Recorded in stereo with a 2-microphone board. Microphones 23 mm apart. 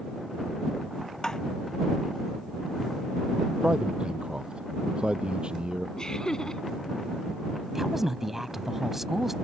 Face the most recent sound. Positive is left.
turn(degrees=-15)  # may be behind; listen again after turning